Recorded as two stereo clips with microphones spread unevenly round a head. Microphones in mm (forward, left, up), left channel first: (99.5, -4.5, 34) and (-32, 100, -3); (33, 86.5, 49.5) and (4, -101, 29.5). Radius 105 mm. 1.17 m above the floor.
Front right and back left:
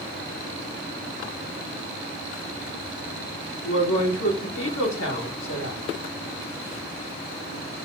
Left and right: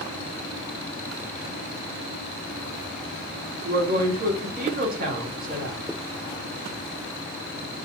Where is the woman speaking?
55° right, 3 m.